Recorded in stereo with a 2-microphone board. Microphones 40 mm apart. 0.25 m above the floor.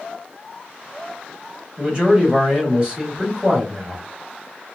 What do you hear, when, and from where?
1.8 s a man speaking: 25° right (ahead or behind), 1.0 m